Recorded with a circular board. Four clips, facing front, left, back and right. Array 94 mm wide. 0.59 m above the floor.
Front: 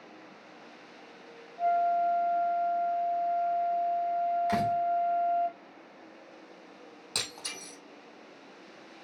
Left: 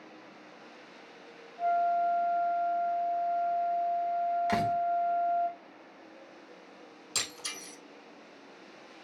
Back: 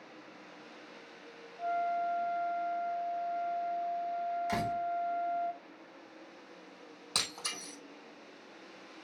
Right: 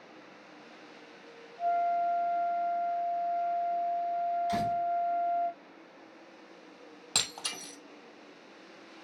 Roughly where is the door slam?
Left.